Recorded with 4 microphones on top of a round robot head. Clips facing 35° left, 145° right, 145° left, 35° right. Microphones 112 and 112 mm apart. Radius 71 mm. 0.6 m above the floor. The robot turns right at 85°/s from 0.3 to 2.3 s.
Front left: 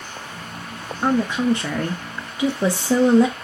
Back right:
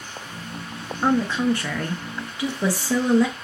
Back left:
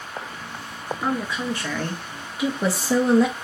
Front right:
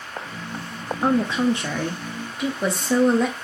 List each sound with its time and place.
1.0 s a woman speaking: 45° right, 0.7 m; by 3.3 s 60° left, 0.7 m